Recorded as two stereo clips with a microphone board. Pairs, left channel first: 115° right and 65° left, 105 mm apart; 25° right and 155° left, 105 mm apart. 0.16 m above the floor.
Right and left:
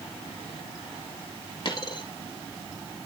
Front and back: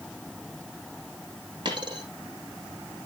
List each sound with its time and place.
1.6 s a dropped coin: 160° right, 2 m